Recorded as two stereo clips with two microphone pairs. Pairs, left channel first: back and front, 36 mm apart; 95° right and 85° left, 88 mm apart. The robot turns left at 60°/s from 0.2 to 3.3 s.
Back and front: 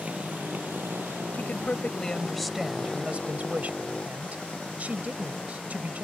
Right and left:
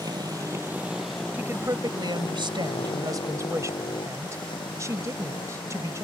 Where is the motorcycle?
45° left; by 6.0 s 115° right.